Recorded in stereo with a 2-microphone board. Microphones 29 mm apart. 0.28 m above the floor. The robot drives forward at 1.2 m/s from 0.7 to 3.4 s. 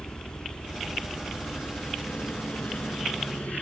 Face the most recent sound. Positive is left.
turn(degrees=60)  # may be behind; listen again after turning